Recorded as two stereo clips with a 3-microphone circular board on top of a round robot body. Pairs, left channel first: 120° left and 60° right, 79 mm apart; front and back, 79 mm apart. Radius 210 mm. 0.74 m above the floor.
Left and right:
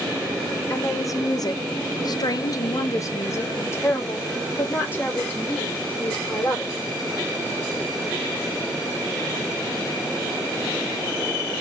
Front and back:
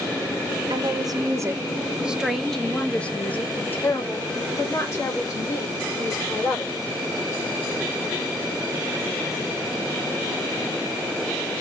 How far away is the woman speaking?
About 1.1 m.